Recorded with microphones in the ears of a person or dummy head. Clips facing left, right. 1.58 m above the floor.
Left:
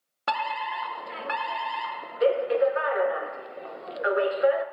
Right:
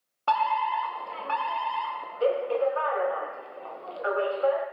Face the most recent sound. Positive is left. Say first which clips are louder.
# right 4 dB
turn(degrees=20)  # may be behind; listen again after turning